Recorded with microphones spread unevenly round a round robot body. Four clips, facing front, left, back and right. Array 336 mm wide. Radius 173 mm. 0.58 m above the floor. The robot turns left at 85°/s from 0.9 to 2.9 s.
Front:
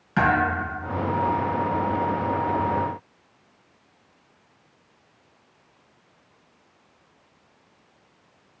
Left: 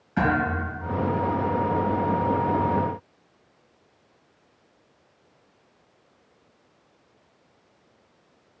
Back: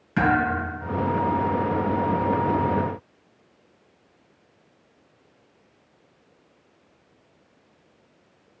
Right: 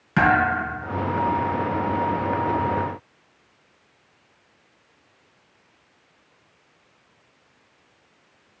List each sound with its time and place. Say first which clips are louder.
0.2 s a thud: right 5 dB, even; 95° right, 3.5 m